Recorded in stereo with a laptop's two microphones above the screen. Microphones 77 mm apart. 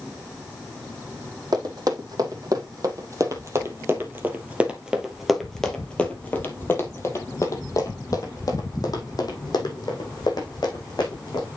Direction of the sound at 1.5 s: 60° right (ahead or behind).